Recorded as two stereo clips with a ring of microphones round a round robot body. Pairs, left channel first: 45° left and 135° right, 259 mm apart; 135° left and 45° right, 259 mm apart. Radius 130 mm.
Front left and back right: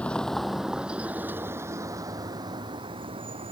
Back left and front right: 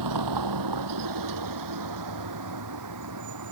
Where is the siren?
I don't hear a siren.